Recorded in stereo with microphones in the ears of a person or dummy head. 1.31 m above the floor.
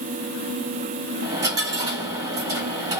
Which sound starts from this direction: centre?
A dropped coin, at 1.2 s.